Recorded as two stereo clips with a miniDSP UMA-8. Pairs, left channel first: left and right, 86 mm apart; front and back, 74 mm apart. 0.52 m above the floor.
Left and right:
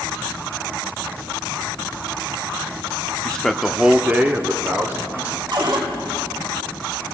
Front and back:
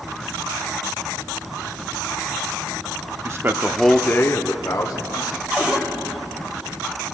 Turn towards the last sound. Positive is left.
turn(degrees=-110)